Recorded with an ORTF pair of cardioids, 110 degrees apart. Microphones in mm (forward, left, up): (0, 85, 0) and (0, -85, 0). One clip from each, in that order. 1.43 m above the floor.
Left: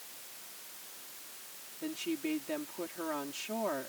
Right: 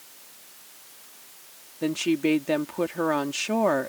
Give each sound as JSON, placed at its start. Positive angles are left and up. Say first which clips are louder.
{"t": 1.8, "sound": "a woman speaking", "louder": "right 12 dB", "azimuth_deg": -70}